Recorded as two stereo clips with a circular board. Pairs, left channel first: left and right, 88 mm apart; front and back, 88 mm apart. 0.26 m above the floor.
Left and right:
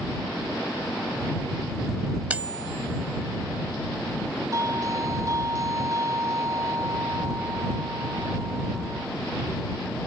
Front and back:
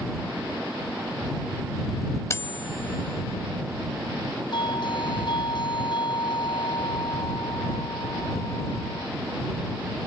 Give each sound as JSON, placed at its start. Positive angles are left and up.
{"t": 2.3, "sound": "cutlery clinking", "azimuth_deg": -25}
{"t": 4.5, "sound": "a doorbell", "azimuth_deg": -35}